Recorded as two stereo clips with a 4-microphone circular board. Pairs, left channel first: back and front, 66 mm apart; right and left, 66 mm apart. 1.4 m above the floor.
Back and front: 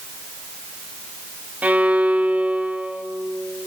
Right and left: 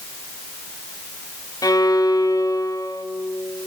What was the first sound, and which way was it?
A violin, 70° right.